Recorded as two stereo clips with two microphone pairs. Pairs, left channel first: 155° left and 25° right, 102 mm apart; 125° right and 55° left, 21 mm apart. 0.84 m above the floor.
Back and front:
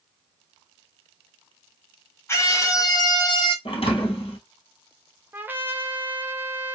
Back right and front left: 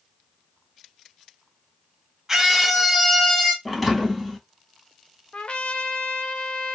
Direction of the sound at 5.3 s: 95° right.